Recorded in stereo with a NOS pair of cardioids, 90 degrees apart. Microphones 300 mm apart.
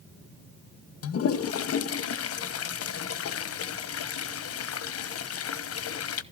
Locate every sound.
1.0 s a toilet flushing: 50° left, 0.9 m